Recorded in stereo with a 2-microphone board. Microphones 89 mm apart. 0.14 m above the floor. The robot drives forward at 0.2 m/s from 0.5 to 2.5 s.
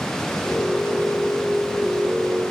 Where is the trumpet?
I don't hear a trumpet.